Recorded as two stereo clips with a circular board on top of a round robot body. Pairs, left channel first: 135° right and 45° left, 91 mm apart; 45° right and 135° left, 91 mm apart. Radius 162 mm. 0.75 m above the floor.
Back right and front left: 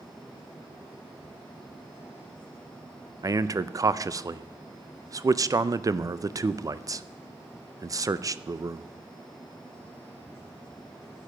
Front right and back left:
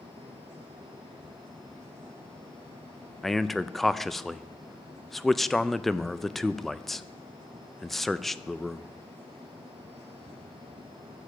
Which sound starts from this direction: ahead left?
A man speaking, at 3.2 s.